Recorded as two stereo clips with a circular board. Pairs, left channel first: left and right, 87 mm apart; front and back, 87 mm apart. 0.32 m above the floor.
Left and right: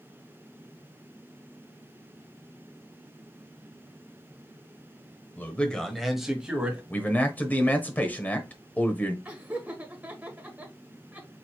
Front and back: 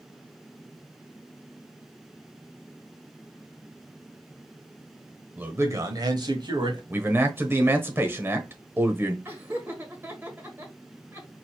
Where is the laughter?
145° right, 1.4 m.